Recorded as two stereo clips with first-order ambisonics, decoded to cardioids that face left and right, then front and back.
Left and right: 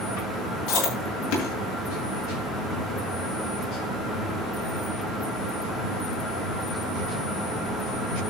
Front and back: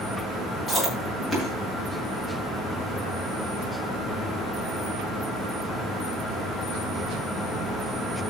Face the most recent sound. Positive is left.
turn(degrees=85)